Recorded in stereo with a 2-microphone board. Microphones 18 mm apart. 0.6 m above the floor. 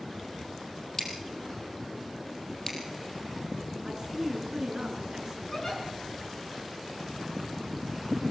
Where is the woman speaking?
35° right (ahead or behind), 6 m.